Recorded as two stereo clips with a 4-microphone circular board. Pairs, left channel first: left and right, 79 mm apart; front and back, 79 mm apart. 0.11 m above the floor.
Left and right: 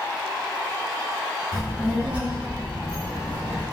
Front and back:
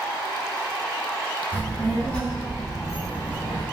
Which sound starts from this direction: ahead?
A child speaking, at 1.5 s.